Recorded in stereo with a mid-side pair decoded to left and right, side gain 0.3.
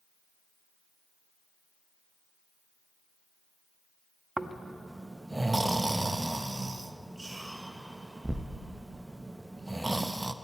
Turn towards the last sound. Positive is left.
turn(degrees=-20)